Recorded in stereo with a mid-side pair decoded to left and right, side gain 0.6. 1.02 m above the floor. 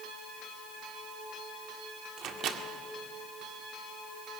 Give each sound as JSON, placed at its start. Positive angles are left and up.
{"t": 2.2, "sound": "a microwave", "azimuth_deg": -50, "distance_m": 1.8}